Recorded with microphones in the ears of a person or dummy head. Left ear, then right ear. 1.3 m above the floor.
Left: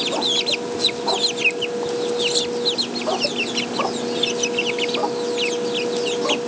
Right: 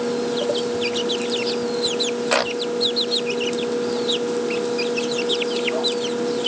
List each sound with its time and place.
Only background noise.